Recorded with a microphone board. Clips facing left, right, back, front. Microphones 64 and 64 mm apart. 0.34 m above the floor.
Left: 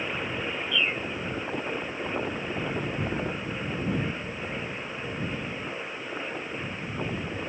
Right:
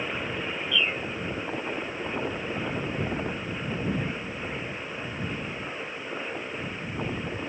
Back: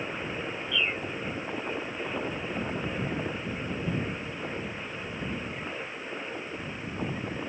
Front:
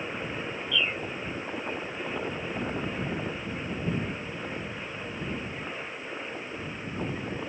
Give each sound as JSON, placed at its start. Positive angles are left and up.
{"t": 0.7, "sound": "a bird", "azimuth_deg": 140}